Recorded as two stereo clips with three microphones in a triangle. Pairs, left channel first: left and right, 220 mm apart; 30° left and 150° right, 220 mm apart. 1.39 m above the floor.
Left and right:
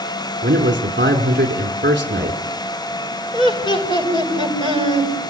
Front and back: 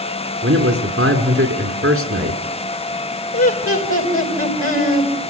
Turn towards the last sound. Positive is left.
turn(degrees=20)